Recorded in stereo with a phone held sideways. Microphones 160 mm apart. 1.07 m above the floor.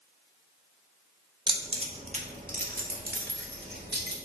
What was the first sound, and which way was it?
Keys jangling, 25° right (ahead or behind).